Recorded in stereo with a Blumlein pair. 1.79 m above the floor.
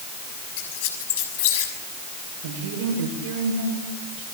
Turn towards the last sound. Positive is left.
turn(degrees=-55)